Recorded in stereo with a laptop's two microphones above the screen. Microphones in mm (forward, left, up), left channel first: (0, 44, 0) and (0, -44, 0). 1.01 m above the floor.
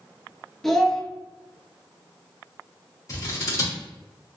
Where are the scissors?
40° left (ahead or behind), 1.5 m.